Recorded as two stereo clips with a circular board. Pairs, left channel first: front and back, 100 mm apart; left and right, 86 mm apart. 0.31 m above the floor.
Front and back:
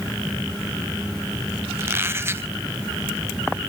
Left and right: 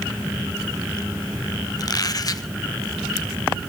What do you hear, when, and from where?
1.8 s a squeak: 120° left, 0.8 m